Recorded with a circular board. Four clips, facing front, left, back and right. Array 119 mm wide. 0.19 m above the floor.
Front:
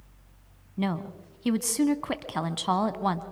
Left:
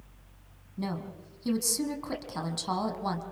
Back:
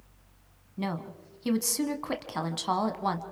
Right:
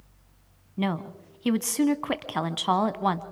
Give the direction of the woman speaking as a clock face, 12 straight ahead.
2 o'clock.